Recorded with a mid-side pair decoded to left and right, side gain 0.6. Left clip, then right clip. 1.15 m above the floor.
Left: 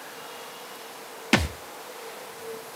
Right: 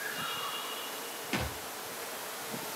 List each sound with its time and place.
1.3 s a thud: 60° left, 1.4 m